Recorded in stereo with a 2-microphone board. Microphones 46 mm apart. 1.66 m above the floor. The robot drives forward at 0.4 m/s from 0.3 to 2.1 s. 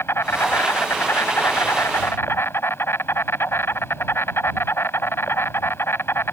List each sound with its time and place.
0.0 s an insect: 60° left (ahead or behind); by 6.3 s 55° left (ahead or behind)